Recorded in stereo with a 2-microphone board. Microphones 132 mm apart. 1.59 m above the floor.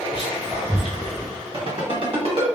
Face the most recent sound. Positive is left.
turn(degrees=-45)  # may be behind; listen again after turning